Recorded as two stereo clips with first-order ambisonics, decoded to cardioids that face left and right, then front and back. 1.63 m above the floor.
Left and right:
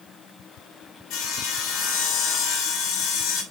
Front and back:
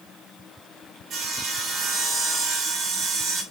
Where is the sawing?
120° left, 3.5 m.